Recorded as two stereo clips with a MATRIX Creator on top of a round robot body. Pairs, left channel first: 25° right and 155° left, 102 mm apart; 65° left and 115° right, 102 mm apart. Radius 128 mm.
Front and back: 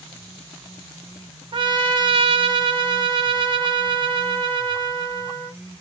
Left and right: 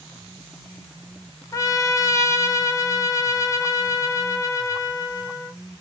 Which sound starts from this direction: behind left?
A trumpet, at 1.5 s.